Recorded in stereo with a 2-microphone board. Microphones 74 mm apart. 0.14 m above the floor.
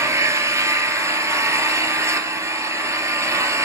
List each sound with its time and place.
0.0 s an engine running: 35° right (ahead or behind), 1.5 m